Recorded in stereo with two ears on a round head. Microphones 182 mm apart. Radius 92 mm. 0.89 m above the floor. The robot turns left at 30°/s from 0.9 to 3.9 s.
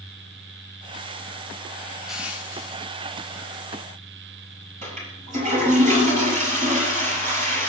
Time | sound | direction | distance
2.1 | crushing | centre (ahead or behind) | 2.5 m
4.8 | a toilet flushing | 40° right (ahead or behind) | 7.5 m